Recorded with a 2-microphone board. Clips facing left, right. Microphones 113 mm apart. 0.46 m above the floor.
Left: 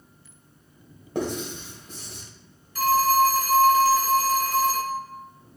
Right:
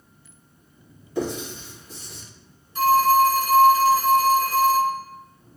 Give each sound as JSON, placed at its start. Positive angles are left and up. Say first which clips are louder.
{"t": 1.1, "sound": "writing", "louder": "right 1 dB", "side_deg": 65, "distance_m": 1.7}
{"t": 2.8, "sound": "a phone ringing", "louder": "right 3 dB", "side_deg": -25, "distance_m": 1.5}